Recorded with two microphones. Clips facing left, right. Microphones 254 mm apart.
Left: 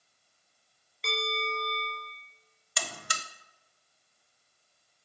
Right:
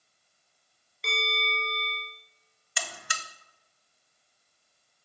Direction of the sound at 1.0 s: Centre (ahead or behind).